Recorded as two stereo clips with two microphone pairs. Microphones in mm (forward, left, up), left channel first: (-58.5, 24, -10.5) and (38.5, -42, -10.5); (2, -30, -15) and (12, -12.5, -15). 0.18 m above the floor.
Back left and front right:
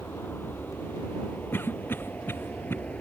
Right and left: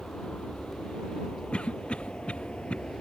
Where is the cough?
145° right.